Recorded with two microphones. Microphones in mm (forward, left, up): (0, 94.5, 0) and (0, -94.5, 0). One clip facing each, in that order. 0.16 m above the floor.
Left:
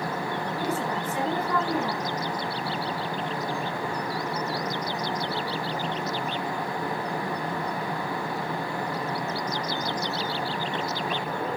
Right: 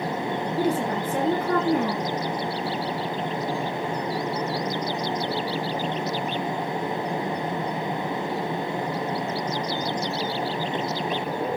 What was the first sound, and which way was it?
A woman speaking, 55° right (ahead or behind).